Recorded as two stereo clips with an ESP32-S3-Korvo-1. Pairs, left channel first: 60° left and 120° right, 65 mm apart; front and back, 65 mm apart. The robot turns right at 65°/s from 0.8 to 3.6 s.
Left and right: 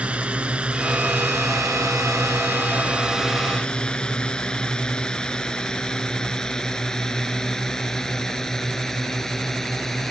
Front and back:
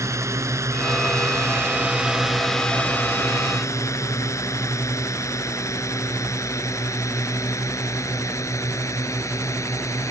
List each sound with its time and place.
0.0 s a drone: 175° left; by 10.1 s 25° right